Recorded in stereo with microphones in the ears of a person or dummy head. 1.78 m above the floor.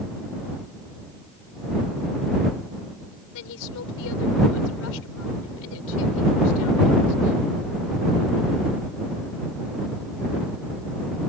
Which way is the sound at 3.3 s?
75° left (ahead or behind).